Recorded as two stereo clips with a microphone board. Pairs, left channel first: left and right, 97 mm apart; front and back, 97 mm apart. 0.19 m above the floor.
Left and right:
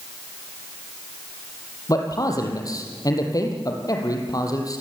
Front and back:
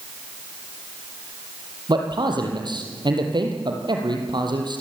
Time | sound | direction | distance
1.9 | a man speaking | 140° left | 5 m